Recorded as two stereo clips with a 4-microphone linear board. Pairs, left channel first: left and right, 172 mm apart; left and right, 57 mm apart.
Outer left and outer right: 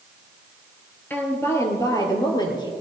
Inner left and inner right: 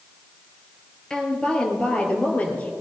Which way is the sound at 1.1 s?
10° left (ahead or behind).